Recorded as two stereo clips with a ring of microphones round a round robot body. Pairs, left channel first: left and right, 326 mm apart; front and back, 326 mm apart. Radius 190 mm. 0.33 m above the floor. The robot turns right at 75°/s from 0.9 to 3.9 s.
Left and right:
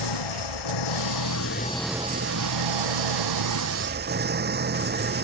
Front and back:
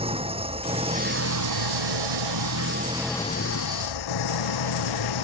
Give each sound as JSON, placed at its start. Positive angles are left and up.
{"t": 0.0, "sound": "an engine running", "azimuth_deg": 105}